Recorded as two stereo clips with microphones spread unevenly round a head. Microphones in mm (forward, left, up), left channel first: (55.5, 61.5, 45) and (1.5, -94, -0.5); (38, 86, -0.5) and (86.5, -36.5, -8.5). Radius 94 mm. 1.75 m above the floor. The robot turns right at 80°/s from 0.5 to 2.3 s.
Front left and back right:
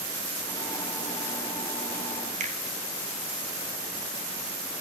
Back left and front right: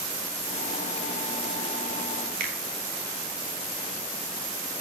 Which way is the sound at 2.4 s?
60° right.